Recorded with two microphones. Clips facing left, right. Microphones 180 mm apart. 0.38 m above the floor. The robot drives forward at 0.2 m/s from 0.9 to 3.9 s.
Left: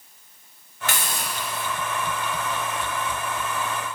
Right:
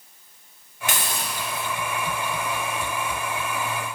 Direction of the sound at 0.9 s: 20° right (ahead or behind).